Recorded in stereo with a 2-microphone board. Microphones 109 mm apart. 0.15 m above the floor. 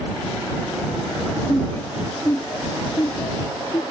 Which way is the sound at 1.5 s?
15° left (ahead or behind).